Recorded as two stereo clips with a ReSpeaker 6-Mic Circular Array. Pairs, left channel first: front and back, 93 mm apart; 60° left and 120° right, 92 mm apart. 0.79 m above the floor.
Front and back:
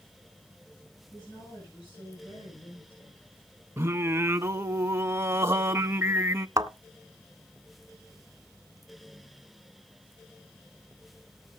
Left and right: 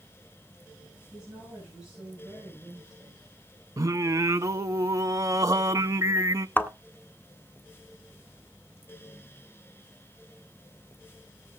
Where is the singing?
135° right, 1.0 m.